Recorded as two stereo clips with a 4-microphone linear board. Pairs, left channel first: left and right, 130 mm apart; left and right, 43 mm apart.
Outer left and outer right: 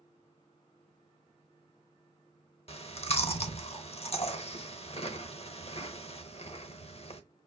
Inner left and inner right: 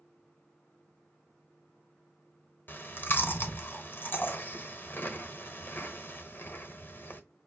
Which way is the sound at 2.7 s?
50° left (ahead or behind).